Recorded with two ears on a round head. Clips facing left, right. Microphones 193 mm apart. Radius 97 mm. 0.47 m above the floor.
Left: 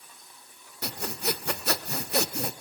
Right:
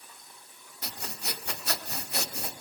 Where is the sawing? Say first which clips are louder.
Left 9 dB; 50° left (ahead or behind), 1.0 m.